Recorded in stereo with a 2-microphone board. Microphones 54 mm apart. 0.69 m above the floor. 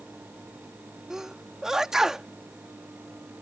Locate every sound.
1.1 s a sneeze: 10° right (ahead or behind)